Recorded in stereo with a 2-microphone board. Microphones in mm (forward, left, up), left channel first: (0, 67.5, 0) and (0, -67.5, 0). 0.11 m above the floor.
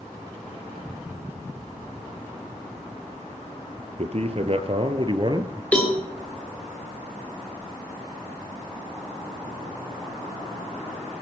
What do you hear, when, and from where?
4.0 s a man speaking: 50° right (ahead or behind), 2 m; by 5.6 s 30° right (ahead or behind), 1.6 m
5.7 s a cowbell: 10° left (ahead or behind), 3 m